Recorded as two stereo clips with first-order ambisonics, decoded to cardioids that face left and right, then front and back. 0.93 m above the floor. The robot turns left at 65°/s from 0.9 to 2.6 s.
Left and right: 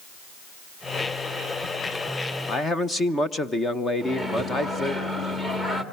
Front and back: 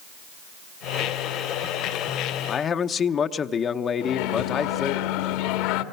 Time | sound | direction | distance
2.5 | a man speaking | 40° left | 0.9 m
4.0 | a microwave | 10° left | 1.7 m